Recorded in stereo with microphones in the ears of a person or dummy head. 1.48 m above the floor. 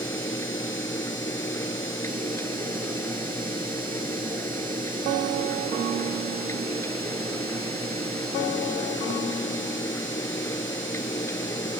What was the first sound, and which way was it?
A fan, 20° left (ahead or behind).